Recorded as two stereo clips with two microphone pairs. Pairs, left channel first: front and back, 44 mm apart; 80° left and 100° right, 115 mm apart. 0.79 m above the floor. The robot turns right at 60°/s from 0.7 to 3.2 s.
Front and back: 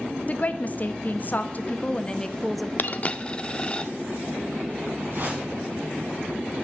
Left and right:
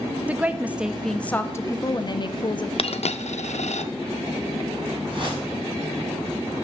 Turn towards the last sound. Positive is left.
turn(degrees=-145)